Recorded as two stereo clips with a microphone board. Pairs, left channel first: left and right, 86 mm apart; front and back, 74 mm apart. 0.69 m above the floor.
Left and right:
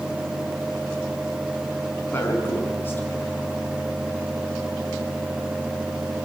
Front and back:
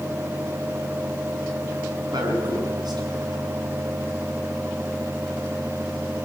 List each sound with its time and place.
2.1 s a man speaking: 155° left, 5.5 m